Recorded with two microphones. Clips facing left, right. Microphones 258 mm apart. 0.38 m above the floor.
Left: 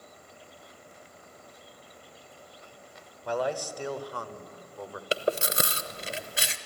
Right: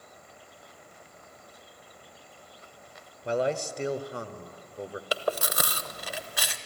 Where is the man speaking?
25° right (ahead or behind), 0.9 m.